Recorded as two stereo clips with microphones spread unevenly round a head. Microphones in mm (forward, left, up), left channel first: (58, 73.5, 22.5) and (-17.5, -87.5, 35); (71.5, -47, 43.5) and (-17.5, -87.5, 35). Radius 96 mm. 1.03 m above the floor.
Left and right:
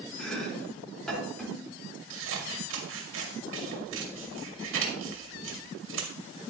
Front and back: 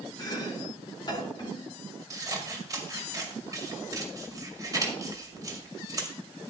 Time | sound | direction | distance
0.2 | chopping | 20° right | 4 m
2.1 | scissors | 100° right | 2.5 m